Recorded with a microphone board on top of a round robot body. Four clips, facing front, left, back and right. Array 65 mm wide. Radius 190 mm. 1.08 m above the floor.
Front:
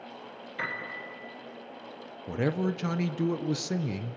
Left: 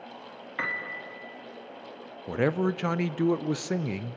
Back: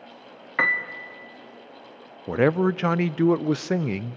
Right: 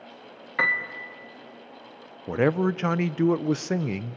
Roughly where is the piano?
Behind.